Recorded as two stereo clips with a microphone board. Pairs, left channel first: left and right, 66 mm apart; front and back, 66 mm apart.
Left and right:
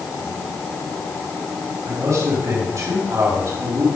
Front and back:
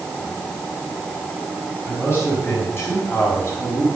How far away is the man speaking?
About 4.5 m.